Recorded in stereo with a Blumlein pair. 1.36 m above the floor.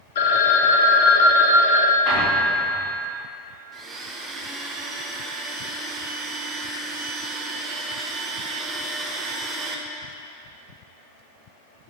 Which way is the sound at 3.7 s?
15° right.